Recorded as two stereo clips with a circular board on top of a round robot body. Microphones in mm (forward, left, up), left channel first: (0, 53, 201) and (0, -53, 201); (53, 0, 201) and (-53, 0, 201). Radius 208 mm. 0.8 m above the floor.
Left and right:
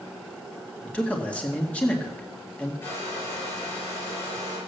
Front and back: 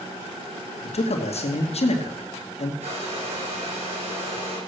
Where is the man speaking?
15° left, 2 m.